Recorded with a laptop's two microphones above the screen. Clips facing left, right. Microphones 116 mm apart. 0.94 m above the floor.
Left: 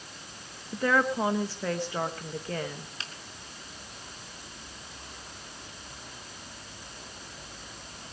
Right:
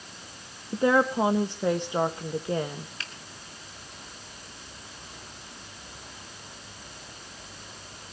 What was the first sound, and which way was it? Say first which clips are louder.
A woman speaking: right 4 dB; 20° right (ahead or behind).